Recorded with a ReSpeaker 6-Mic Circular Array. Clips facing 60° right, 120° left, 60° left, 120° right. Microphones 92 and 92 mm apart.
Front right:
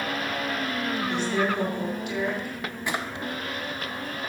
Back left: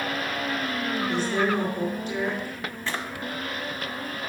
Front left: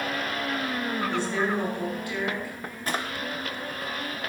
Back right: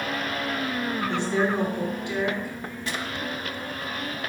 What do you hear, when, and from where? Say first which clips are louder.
1.1 s a woman speaking: back left 2 dB, back right 4 dB; 175° left, 6 m
2.9 s a drawer: front right 2 dB, front left 3 dB; 15° left, 1.3 m